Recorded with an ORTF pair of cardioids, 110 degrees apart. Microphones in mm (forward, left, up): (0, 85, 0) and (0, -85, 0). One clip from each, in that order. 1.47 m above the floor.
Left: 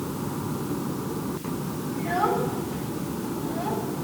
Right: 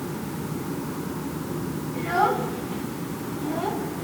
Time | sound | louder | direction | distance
1.9 | a child speaking | right 2 dB | 45° right | 2.5 m